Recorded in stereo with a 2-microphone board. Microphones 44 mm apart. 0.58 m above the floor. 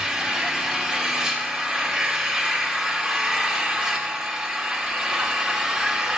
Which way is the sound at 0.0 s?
15° right (ahead or behind).